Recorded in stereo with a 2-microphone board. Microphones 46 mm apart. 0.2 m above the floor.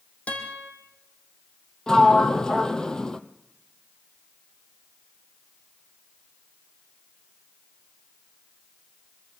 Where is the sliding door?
15° left (ahead or behind), 1.0 m.